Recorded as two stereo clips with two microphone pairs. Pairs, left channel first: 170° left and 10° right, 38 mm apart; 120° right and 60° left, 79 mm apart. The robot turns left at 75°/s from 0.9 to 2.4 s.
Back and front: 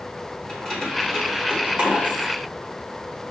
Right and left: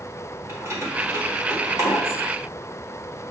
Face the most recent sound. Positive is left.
turn(degrees=-5)